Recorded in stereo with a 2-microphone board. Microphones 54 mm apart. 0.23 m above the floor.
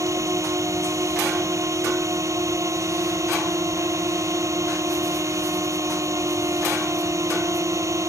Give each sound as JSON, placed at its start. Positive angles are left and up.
{"t": 0.0, "sound": "a drone", "side_deg": -65}